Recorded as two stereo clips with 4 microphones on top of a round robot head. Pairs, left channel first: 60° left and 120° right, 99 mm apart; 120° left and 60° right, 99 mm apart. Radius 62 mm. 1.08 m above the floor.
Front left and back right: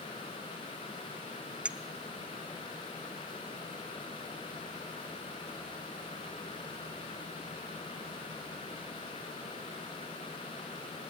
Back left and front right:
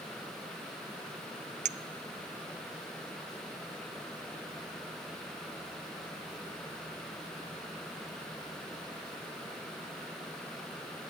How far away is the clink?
About 0.7 m.